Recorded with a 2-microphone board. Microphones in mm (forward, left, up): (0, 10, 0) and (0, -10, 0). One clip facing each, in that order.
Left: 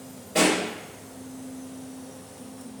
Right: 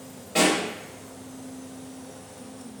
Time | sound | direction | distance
0.3 | a pop | 40° right (ahead or behind) | 1.6 m